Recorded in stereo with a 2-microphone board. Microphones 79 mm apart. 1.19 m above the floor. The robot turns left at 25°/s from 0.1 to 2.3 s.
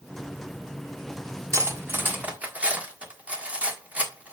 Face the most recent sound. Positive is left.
turn(degrees=-15)  # may be behind; listen again after turning